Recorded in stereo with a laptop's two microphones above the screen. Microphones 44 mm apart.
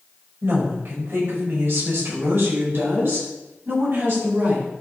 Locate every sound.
0.4 s a woman speaking: 65° right (ahead or behind), 5 m